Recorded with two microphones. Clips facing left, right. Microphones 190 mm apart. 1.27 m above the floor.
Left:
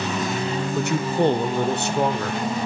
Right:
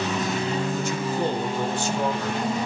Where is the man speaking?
65° left (ahead or behind), 1.1 m.